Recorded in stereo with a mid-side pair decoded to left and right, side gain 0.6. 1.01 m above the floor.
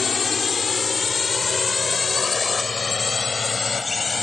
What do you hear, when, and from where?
0.0 s a drone: 35° left; by 4.2 s 25° left